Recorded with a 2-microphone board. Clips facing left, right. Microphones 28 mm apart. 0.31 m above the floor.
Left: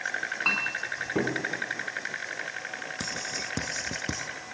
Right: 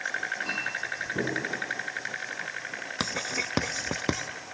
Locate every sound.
0.5 s a clink: 70° left (ahead or behind), 2.5 m
3.0 s writing: 50° right (ahead or behind), 0.6 m